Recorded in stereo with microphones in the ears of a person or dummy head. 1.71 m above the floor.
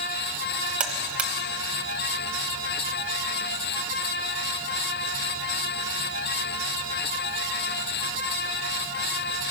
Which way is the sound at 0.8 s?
5° right (ahead or behind).